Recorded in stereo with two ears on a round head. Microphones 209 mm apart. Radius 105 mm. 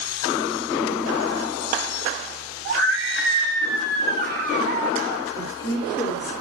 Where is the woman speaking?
20° left (ahead or behind), 2.5 m.